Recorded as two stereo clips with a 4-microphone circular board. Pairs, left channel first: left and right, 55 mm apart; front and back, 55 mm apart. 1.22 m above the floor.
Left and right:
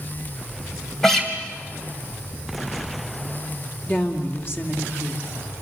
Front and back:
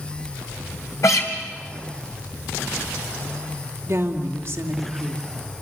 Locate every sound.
1.0 s a guitar: 10° left, 3 m
3.9 s a woman speaking: 135° left, 2.5 m